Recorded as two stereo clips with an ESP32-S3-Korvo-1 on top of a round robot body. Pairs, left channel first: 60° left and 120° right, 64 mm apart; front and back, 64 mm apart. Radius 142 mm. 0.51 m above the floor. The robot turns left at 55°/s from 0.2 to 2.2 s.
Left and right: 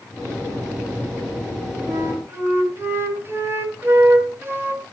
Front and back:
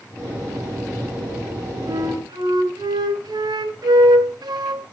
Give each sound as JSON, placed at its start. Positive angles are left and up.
{"t": 1.9, "sound": "a flute", "azimuth_deg": -155, "distance_m": 1.8}